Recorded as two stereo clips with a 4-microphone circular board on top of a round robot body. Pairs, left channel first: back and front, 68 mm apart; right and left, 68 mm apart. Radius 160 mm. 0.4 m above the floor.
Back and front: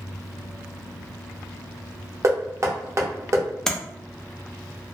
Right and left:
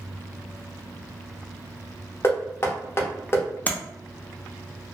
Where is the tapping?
105° right, 0.8 m.